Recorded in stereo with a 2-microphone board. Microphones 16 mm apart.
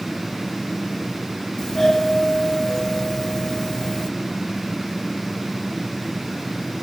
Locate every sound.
1.6 s a doorbell: 50° left (ahead or behind), 2.5 m